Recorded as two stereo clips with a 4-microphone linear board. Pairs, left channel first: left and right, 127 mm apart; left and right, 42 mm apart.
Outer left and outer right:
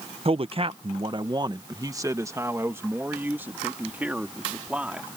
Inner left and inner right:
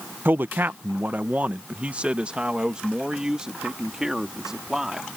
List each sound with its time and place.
0.2 s a man speaking: 50° right (ahead or behind); by 5.1 s 10° right (ahead or behind)